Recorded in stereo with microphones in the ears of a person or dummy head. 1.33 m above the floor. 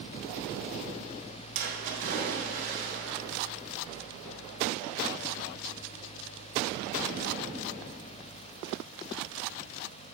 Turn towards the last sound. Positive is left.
turn(degrees=-45)  # may be behind; listen again after turning